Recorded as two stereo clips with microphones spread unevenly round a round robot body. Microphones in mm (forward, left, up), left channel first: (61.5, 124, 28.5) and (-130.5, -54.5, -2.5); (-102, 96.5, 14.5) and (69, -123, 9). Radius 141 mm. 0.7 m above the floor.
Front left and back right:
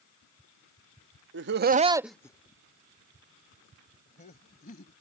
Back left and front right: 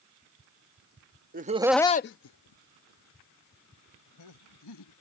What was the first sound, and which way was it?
Laughter, 105° right.